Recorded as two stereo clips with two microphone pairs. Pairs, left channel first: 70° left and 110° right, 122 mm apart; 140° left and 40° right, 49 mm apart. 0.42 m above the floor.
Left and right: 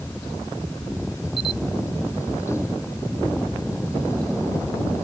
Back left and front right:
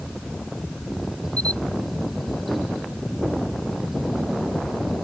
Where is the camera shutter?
95° left.